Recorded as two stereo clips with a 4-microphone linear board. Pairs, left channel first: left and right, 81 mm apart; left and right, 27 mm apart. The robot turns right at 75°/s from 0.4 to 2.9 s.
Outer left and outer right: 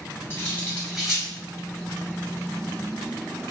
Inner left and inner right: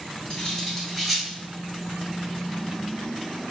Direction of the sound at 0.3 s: 30° left (ahead or behind).